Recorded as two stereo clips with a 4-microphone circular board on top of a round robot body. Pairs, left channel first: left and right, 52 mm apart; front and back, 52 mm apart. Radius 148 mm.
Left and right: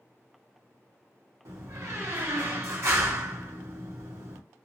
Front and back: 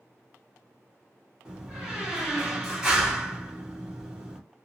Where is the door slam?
105° right, 1.4 m.